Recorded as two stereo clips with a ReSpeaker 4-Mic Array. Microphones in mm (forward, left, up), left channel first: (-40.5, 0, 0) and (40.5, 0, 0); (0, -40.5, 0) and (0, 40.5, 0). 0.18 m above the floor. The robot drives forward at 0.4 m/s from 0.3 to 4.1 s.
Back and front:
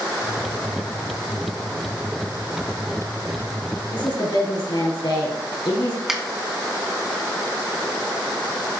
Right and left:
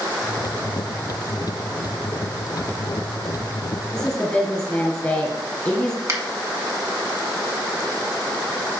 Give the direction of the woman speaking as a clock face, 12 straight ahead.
6 o'clock.